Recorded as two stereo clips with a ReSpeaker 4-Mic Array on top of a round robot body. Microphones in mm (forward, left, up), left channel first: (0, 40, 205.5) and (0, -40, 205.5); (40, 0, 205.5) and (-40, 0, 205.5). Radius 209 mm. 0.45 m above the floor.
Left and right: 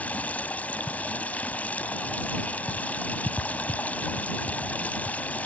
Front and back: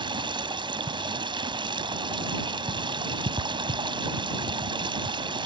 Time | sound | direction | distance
0.0 | running water | 160° left | ?